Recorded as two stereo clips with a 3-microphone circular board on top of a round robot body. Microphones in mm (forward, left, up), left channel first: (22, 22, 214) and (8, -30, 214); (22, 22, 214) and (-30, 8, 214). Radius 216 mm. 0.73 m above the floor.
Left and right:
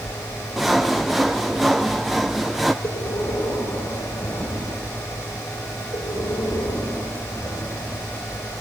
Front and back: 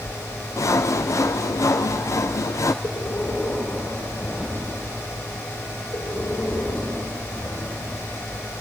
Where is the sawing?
15° right, 0.6 m.